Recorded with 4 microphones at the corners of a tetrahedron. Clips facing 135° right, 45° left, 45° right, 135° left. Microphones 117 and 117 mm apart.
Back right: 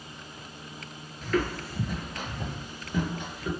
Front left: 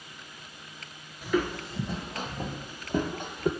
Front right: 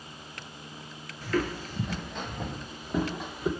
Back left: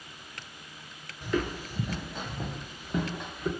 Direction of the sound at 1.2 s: 110° left.